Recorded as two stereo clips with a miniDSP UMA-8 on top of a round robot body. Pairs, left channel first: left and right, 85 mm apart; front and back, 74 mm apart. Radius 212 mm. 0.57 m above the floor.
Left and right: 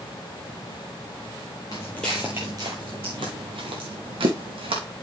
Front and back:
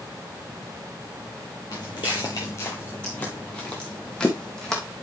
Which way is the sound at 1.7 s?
45° left.